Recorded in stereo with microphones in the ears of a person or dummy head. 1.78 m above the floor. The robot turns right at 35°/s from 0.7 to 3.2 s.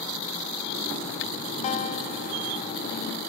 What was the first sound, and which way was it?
A guitar, 60° left.